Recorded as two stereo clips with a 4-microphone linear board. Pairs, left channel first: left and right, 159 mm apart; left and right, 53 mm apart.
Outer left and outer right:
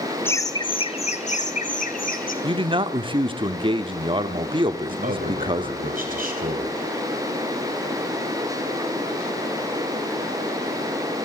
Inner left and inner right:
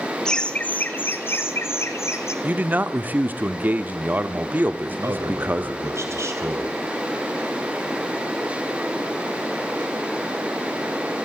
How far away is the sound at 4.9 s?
About 2 m.